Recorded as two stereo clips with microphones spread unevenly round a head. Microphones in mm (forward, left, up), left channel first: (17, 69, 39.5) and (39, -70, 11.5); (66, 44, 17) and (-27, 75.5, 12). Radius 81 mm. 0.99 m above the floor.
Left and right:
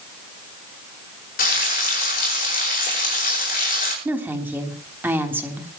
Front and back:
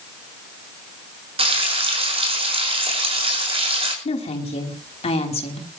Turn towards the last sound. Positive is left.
turn(degrees=-5)